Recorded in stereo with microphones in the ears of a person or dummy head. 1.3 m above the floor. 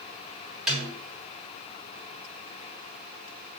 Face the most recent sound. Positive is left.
turn(degrees=-5)  # may be behind; listen again after turning